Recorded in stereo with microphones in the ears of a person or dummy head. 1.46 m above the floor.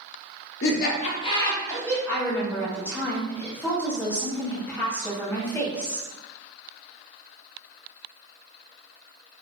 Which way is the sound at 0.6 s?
80° left.